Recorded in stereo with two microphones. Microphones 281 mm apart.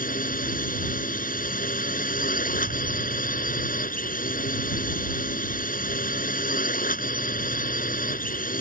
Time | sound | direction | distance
0.0 | a drone | 30° left (ahead or behind) | ?